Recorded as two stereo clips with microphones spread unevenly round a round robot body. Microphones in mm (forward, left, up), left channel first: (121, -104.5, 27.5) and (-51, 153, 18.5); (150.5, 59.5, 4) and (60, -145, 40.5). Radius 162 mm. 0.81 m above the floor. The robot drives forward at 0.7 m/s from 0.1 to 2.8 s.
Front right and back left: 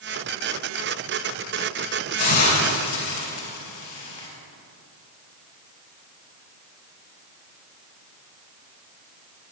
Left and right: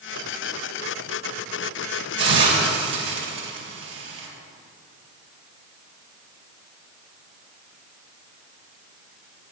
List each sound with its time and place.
2.2 s a hiss: 100° right, 4 m; by 4.3 s 105° right, 4 m